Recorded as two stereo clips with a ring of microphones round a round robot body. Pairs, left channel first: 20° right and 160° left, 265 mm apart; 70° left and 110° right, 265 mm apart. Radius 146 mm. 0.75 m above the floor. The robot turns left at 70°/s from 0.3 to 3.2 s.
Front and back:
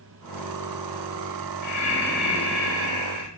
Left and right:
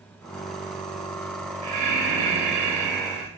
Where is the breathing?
70° right, 0.6 m; by 3.3 s straight behind, 0.6 m.